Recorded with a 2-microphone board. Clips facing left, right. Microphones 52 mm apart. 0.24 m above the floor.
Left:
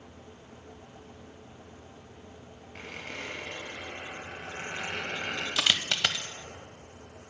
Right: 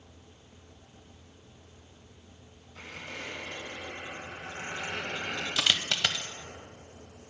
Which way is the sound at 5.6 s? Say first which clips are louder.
Left 1 dB; 10° left (ahead or behind).